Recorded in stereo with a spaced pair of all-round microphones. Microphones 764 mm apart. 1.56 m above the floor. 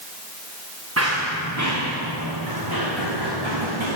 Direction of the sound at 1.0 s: 15° right (ahead or behind).